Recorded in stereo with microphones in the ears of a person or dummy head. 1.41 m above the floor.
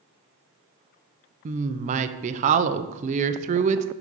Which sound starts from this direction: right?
A woman speaking, at 1.4 s.